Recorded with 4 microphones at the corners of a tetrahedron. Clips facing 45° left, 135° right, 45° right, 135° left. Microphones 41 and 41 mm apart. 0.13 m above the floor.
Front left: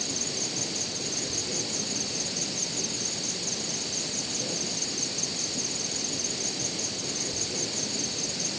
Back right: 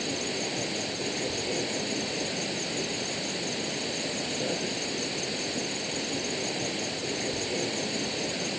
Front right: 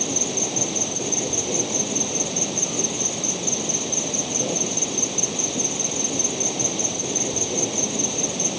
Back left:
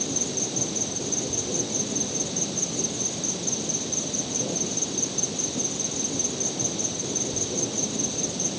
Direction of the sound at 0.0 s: 75° right.